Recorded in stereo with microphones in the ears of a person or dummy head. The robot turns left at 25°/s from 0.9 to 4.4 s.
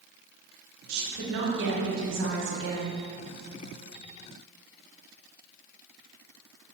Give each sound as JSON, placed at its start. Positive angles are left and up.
{"t": 0.9, "sound": "a woman speaking", "azimuth_deg": -60, "distance_m": 1.1}